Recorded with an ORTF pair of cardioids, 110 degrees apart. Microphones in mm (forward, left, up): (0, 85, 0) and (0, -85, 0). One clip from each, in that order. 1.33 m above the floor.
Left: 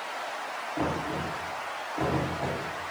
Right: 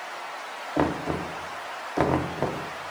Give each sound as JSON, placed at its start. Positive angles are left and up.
{"t": 0.8, "sound": "knocking", "azimuth_deg": -65, "distance_m": 0.6}